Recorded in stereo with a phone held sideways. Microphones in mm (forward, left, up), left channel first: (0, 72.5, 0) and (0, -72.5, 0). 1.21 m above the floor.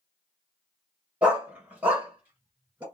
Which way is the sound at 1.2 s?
10° right (ahead or behind).